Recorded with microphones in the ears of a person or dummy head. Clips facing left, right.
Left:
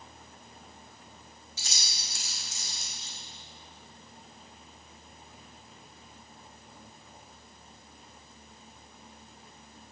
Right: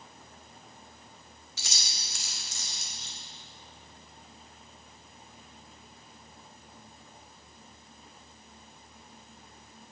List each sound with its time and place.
1.6 s keys jangling: 65° right (ahead or behind), 1.5 m